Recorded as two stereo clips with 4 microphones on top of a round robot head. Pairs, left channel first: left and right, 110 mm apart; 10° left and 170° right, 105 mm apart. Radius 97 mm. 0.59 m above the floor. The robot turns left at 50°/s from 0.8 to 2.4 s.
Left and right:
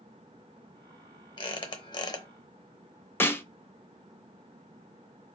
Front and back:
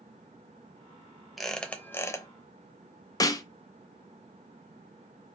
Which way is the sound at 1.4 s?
100° left.